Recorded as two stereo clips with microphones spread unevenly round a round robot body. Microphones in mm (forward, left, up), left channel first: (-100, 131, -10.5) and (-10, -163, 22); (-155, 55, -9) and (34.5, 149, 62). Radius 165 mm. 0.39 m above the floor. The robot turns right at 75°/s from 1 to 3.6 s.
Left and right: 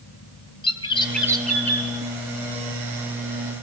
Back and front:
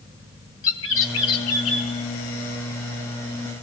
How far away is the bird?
About 3 m.